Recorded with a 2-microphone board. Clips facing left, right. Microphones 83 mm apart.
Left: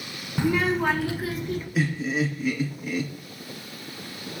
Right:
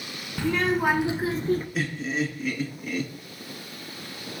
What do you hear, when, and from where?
0.4 s a child speaking: 20° left (ahead or behind), 0.7 m; by 1.6 s 40° right (ahead or behind), 1.2 m
1.8 s laughter: 5° left (ahead or behind), 2.0 m